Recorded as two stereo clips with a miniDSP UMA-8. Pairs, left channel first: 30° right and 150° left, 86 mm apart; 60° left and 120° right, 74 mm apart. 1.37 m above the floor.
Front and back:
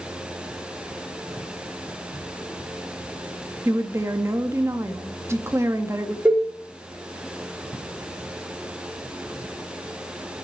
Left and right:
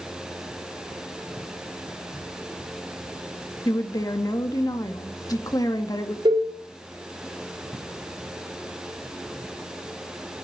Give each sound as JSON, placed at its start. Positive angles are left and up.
{"t": 3.6, "sound": "a woman speaking", "azimuth_deg": 95, "distance_m": 1.8}
{"t": 6.2, "sound": "a cowbell", "azimuth_deg": -140, "distance_m": 4.0}